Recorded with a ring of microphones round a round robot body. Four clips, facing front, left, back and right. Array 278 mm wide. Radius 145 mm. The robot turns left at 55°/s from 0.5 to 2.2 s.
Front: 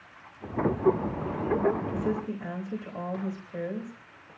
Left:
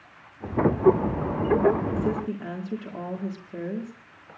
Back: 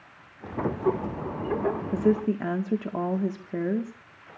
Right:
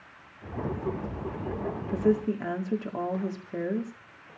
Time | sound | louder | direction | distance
1.9 | a woman speaking | right 2 dB, back 7 dB | 150° right | 1.9 m